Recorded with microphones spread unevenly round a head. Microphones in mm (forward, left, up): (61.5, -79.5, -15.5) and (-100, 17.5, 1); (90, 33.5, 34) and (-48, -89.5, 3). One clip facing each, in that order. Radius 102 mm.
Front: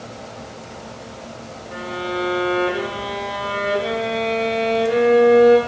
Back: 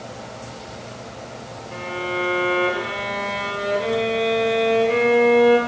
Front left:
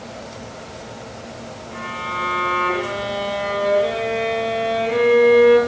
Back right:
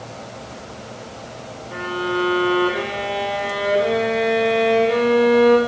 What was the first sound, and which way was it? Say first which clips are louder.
A violin: front 1 dB, back right 11 dB; 105° right.